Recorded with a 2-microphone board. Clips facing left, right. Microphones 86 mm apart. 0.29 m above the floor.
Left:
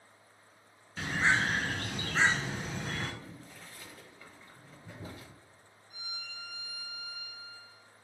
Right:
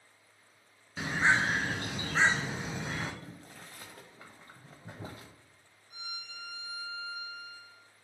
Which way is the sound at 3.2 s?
45° right (ahead or behind).